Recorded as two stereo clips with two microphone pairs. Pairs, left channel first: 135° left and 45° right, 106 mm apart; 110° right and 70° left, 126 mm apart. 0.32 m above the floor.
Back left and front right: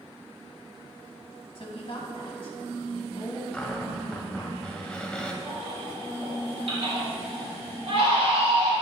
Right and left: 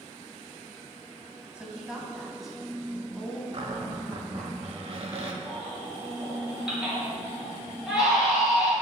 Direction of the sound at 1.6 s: 150° left.